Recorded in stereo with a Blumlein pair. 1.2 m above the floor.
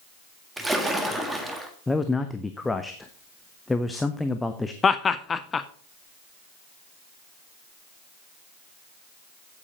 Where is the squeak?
No squeak in this recording.